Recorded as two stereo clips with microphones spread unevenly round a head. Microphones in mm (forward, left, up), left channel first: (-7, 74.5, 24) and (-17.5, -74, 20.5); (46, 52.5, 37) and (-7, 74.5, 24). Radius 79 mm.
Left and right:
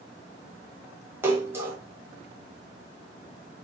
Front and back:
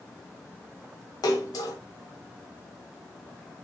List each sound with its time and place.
1.2 s a splash: 20° right, 1.6 m